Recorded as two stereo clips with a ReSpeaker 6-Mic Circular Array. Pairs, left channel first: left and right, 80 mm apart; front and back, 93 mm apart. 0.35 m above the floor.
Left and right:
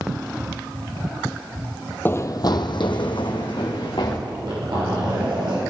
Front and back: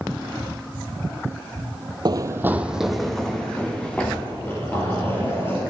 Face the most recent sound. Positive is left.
turn(degrees=-65)